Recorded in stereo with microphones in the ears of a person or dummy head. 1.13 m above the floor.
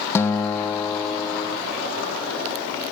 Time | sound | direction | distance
0.1 | a guitar | 15° left (ahead or behind) | ?